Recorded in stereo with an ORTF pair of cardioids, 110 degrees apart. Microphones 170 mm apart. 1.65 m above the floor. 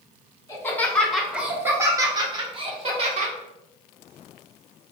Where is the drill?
No drill in this recording.